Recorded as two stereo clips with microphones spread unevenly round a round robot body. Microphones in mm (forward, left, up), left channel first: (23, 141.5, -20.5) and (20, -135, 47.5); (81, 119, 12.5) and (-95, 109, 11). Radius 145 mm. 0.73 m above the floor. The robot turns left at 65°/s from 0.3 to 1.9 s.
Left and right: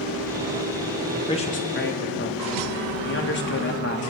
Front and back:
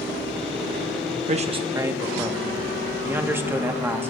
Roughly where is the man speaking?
Behind left.